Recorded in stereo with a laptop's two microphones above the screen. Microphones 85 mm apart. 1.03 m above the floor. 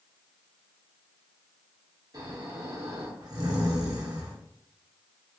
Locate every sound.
2.1 s snoring: 50° right (ahead or behind), 1.0 m